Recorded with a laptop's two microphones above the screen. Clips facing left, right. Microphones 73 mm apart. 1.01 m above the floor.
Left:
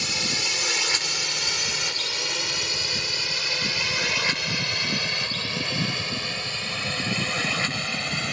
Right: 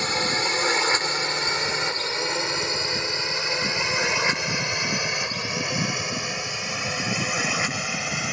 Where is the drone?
40° right (ahead or behind); by 8.3 s 10° right (ahead or behind).